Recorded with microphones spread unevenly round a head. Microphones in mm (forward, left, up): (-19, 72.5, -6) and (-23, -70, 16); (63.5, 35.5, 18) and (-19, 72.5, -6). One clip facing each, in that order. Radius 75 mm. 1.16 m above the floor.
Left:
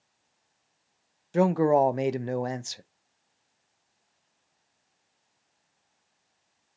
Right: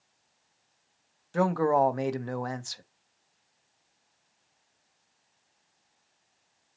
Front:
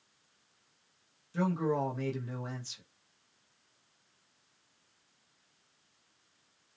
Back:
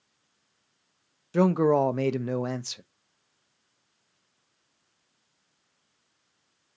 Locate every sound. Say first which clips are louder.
1.3 s a man speaking: left 3 dB, back 10 dB; 155° left, 0.7 m